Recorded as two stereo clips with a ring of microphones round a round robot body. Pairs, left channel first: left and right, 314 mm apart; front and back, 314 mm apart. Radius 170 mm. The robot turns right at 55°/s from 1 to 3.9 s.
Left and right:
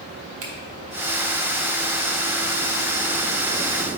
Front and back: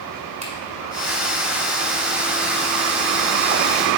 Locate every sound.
0.4 s a finger snap: 110° right, 1.8 m